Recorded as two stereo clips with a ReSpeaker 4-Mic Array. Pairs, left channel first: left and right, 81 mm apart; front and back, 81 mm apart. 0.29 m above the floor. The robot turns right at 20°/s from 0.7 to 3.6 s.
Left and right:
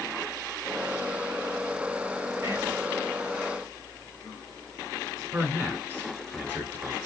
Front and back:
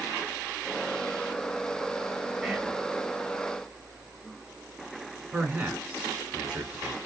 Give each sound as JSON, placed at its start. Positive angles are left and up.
{"t": 2.4, "sound": "whispering", "azimuth_deg": -95, "distance_m": 1.0}
{"t": 5.3, "sound": "a man speaking", "azimuth_deg": -115, "distance_m": 1.2}